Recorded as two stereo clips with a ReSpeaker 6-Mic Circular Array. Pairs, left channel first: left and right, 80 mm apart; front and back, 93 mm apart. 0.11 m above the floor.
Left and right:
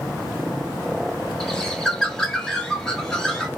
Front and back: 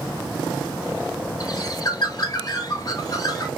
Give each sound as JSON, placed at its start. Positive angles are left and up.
{"t": 1.4, "sound": "a bird", "azimuth_deg": 10, "distance_m": 0.5}